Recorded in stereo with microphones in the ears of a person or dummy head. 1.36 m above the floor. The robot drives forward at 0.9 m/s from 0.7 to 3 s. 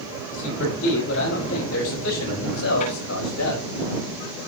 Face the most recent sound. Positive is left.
turn(degrees=85)